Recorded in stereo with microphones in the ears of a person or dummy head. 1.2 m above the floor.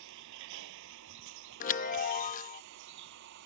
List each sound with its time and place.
0.0 s a vehicle: 75° right (ahead or behind); by 3.5 s 70° right (ahead or behind)
1.6 s a chime: 45° left (ahead or behind)